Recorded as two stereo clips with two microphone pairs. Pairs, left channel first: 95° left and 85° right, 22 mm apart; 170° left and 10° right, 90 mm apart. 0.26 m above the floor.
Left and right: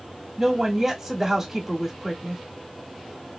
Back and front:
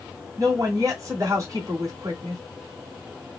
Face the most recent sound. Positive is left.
turn(degrees=-30)